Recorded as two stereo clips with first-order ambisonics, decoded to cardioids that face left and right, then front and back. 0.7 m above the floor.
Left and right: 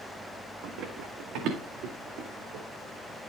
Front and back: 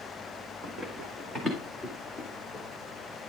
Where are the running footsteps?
115° right, 2.5 m; by 2.6 s 90° right, 3 m.